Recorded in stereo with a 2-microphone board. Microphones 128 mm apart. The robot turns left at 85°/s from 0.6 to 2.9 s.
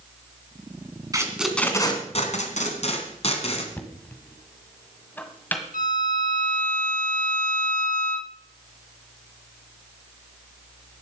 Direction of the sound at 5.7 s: 80° left.